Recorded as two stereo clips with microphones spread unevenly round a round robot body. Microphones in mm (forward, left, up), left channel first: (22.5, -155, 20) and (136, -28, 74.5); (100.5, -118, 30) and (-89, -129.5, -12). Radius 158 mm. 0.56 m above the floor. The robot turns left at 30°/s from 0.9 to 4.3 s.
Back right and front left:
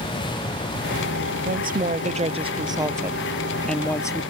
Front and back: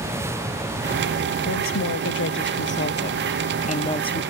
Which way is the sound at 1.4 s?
20° left.